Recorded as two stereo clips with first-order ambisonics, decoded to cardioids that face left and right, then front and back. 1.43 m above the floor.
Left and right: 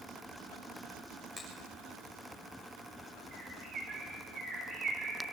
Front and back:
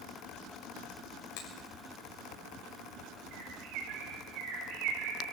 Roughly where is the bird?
Behind right.